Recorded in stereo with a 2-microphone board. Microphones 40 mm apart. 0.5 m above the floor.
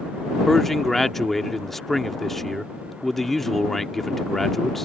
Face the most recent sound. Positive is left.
turn(degrees=5)  # may be behind; listen again after turning